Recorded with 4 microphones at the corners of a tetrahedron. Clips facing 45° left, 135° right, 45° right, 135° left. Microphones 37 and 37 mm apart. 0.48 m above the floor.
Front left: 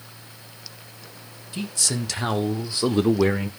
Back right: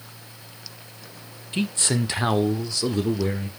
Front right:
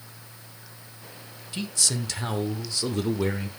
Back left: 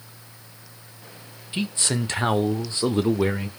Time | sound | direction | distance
1.5 | a man speaking | 170° right | 1.6 m